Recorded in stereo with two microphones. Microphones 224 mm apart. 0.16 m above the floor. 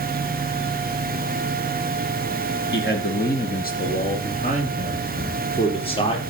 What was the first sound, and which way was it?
A man speaking, 50° left (ahead or behind).